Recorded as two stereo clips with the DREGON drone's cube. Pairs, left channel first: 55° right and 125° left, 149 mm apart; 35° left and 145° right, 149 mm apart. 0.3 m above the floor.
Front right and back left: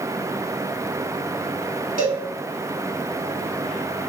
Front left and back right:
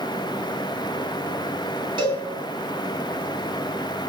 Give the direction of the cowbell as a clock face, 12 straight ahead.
7 o'clock.